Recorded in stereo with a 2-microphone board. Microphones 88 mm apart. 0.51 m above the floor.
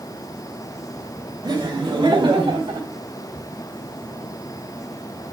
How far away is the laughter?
About 2.0 m.